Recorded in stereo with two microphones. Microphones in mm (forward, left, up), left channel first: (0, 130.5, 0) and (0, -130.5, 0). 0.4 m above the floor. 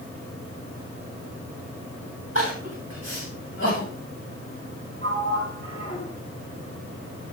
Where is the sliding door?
35° left (ahead or behind), 8 m.